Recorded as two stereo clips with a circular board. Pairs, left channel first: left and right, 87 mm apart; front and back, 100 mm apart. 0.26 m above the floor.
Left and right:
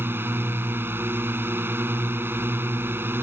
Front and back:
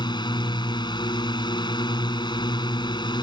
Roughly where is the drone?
Ahead right.